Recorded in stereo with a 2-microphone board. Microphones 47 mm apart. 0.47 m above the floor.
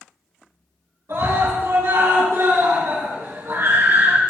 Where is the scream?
80° right, 7 m; by 4.2 s 70° right (ahead or behind), 5 m.